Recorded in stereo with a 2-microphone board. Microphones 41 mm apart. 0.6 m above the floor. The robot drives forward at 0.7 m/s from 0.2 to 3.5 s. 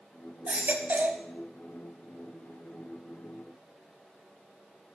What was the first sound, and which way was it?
A baby crying, 35° right (ahead or behind).